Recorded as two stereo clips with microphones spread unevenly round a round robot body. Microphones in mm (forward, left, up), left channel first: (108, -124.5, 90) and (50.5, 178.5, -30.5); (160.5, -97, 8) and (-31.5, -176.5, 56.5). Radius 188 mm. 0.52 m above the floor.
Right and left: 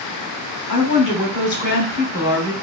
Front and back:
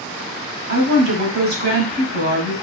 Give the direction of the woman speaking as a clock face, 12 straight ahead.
5 o'clock.